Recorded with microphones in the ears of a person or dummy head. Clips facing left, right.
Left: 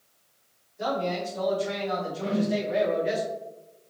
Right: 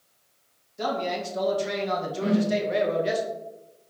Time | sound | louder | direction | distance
0.8 | a man speaking | even | 75° right (ahead or behind) | 1.9 m
2.2 | a whoosh | right 4 dB | 30° right (ahead or behind) | 0.7 m